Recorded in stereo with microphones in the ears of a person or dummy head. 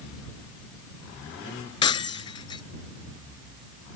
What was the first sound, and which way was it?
Breaking glass, 25° left (ahead or behind).